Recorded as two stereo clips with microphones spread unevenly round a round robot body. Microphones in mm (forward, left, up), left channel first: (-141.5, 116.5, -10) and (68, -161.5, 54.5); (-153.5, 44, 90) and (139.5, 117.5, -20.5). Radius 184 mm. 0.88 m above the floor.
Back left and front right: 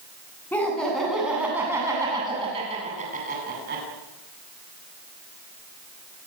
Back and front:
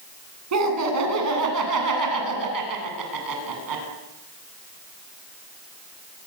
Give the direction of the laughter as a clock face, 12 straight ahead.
11 o'clock.